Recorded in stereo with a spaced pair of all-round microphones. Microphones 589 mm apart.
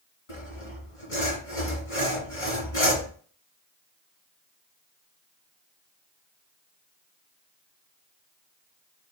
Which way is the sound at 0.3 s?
60° left (ahead or behind).